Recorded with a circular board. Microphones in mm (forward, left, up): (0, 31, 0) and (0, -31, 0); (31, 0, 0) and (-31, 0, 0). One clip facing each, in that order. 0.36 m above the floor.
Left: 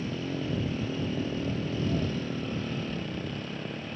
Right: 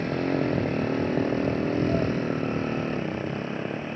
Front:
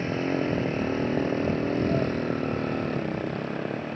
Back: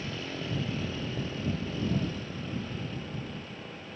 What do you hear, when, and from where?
0.0 s a motorcycle: 55° right; by 4.0 s 30° right